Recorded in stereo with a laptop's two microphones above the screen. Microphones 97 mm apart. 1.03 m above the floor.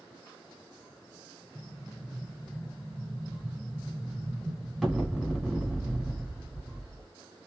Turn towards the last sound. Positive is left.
turn(degrees=0)  # may be behind; listen again after turning